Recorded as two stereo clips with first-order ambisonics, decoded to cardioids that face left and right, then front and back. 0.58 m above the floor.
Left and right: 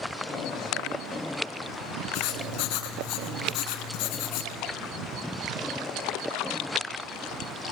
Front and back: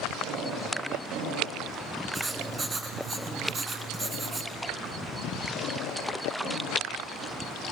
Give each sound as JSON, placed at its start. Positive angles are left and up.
{"t": 2.1, "sound": "writing", "azimuth_deg": 110, "distance_m": 3.0}